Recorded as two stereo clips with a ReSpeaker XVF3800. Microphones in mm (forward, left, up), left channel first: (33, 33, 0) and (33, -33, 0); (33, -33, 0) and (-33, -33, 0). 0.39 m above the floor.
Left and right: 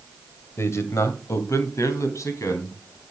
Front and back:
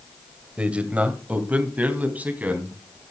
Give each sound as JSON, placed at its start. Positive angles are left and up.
{"t": 0.6, "sound": "a man speaking", "azimuth_deg": 115, "distance_m": 1.7}